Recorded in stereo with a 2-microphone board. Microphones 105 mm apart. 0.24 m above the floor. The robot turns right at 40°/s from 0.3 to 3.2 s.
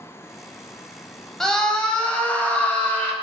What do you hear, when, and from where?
1.4 s a scream: 5° left (ahead or behind), 0.9 m; by 3.1 s 20° left (ahead or behind), 0.9 m